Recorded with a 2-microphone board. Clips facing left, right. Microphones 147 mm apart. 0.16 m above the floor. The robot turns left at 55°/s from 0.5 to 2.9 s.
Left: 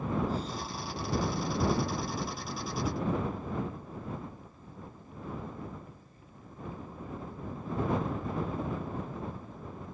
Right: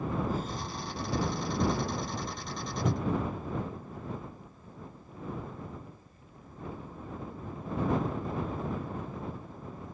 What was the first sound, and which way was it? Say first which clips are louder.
Breathing: even; 50° right (ahead or behind).